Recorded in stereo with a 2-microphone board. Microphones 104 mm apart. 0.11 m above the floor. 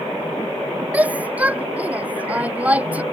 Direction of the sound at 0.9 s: 15° right (ahead or behind).